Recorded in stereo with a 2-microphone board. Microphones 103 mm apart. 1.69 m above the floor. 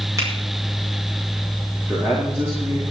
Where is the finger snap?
30° right (ahead or behind), 6.5 m.